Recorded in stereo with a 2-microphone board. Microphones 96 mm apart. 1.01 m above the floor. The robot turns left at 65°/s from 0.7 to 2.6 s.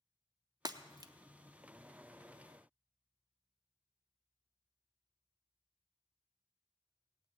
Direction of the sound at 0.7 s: 45° right (ahead or behind).